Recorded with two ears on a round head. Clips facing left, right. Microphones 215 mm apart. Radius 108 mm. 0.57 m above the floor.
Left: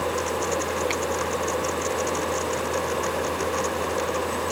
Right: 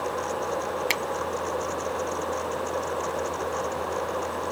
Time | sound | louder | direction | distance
0.9 | a finger snap | left 3 dB | 70° right (ahead or behind) | ?